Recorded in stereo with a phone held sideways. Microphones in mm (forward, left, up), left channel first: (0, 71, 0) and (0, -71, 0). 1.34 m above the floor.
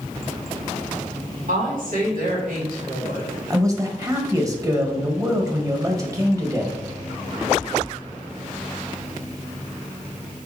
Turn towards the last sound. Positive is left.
turn(degrees=-25)  # may be behind; listen again after turning